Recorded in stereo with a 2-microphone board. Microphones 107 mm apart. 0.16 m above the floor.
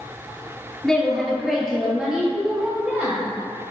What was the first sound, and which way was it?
A woman speaking, 5° left (ahead or behind).